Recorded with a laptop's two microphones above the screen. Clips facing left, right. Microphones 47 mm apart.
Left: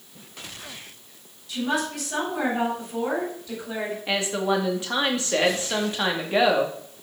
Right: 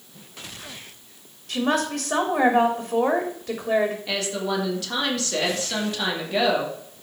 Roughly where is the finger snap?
I don't hear a finger snap.